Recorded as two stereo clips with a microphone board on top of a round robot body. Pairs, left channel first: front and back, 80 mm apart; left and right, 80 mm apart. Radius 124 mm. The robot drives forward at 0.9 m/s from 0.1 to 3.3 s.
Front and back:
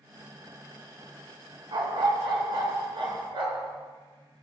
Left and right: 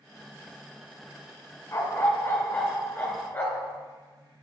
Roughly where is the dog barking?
Behind left.